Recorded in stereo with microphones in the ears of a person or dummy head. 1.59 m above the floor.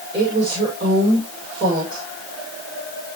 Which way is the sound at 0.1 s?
25° right (ahead or behind).